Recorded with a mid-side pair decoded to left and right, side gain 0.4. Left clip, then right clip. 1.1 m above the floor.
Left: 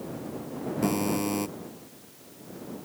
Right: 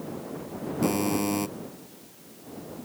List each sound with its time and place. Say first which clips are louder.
0.8 s a buzzer: right 2 dB; 10° right